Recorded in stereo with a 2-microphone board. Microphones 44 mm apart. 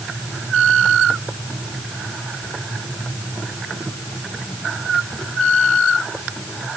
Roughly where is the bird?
No bird in this recording.